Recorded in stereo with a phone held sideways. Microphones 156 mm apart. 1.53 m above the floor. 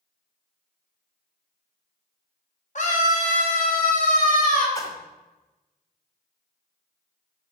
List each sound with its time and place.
2.8 s a scream: 50° left (ahead or behind), 2.5 m; by 4.7 s 60° left (ahead or behind), 3.5 m
4.8 s a splash: 20° left (ahead or behind), 1.4 m